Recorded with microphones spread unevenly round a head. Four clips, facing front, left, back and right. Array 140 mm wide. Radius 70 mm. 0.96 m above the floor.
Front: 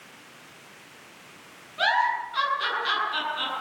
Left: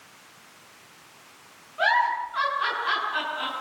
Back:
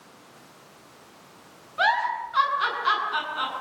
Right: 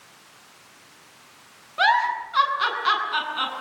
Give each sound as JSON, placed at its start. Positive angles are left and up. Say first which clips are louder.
{"t": 1.8, "sound": "a giggle", "louder": "right 2 dB, even", "azimuth_deg": -90, "distance_m": 8.0}